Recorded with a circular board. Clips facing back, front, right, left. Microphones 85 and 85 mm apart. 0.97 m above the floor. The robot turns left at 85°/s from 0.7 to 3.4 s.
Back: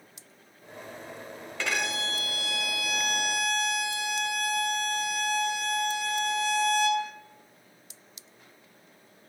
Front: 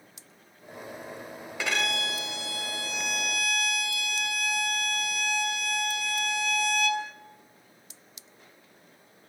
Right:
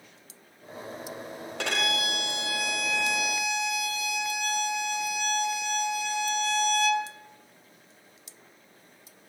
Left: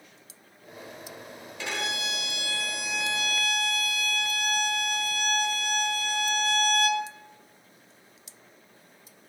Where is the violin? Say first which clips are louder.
Front 1 dB, right 3 dB; 75° right, 1.3 m; by 7.1 s 130° left, 1.3 m.